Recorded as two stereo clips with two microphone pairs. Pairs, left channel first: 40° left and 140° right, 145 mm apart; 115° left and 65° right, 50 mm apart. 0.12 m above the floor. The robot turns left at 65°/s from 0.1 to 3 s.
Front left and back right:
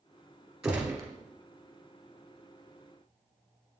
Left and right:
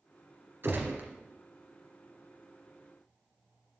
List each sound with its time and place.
0.6 s a gunshot: 55° right, 1.7 m; by 1.1 s 85° right, 1.7 m